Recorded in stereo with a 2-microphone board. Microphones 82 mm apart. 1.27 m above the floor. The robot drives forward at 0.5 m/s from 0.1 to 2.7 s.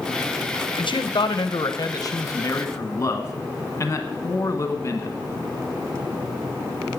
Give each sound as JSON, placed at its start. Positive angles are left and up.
{"t": 0.8, "sound": "a man speaking", "side_deg": 75, "distance_m": 0.8}